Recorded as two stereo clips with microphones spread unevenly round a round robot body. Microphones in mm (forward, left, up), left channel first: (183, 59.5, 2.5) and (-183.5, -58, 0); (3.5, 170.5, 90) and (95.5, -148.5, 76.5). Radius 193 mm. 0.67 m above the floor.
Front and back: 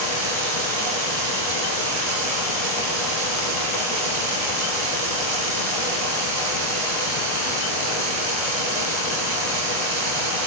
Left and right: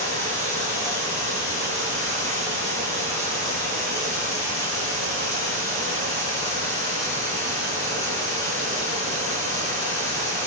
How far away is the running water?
About 4 m.